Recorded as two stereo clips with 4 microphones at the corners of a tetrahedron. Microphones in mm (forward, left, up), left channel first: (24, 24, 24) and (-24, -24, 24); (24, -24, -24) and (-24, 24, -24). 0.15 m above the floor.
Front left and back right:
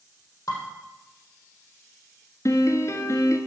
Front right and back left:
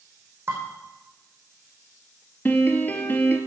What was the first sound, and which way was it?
Dishes clattering, 85° left.